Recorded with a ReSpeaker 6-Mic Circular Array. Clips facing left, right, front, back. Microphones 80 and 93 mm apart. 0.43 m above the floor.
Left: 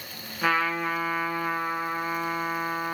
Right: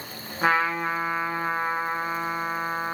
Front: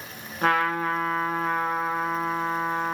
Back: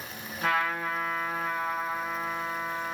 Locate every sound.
0.4 s a trumpet: 30° right, 0.7 m